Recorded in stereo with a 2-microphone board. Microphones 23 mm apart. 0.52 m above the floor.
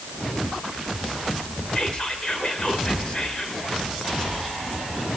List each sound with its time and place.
1.8 s whispering: 35° left (ahead or behind), 1.9 m